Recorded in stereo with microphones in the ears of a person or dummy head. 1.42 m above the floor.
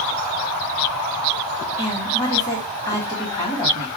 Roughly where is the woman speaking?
Left.